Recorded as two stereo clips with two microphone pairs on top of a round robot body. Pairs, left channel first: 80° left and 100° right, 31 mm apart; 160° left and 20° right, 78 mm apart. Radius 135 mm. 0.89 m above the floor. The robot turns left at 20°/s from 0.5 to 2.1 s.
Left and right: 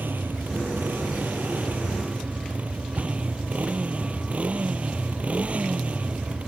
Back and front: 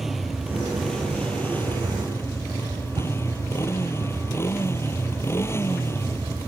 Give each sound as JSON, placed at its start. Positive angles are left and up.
{"t": 0.0, "sound": "a motorcycle", "azimuth_deg": -110}
{"t": 3.0, "sound": "a cupboard door", "azimuth_deg": -50}